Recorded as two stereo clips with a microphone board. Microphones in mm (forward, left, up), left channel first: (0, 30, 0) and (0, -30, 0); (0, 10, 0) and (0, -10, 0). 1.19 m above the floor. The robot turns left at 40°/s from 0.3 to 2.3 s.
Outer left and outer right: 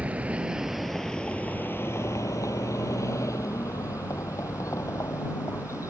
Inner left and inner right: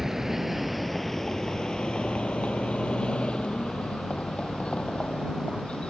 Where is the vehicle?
20° right (ahead or behind); by 5.9 s 55° left (ahead or behind).